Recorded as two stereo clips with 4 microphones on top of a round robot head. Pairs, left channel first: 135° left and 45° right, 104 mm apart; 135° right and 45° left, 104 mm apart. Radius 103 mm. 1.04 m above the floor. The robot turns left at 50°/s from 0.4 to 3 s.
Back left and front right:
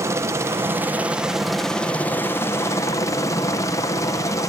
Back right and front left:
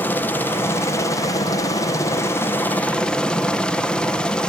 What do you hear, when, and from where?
0.0 s a helicopter: 80° right; by 4.5 s 150° left